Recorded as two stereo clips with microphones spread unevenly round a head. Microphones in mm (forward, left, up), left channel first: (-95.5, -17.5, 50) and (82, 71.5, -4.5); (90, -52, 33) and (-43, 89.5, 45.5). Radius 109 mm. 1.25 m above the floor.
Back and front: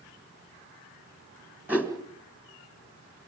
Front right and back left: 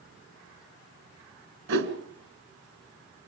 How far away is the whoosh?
About 1.9 m.